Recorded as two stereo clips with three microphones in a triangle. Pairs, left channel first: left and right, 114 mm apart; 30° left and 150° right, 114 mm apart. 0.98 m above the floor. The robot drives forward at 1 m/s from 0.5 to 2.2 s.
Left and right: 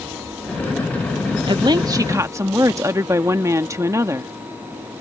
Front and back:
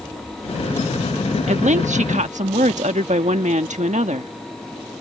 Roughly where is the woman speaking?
Behind right.